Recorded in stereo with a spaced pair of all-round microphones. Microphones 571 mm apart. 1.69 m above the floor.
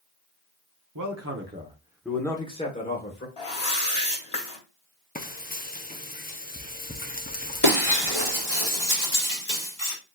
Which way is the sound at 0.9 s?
35° right (ahead or behind).